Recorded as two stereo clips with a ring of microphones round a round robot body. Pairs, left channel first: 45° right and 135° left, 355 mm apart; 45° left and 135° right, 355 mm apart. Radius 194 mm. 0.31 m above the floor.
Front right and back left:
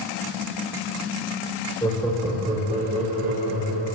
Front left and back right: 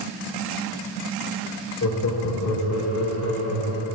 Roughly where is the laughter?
Ahead left.